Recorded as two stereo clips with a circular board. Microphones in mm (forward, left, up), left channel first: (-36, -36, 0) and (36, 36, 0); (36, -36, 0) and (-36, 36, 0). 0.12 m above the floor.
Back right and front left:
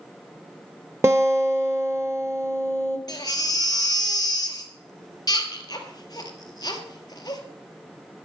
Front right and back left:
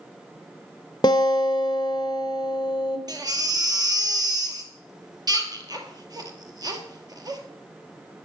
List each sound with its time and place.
1.0 s a guitar: 10° right, 1.3 m
3.1 s a baby crying: straight behind, 1.8 m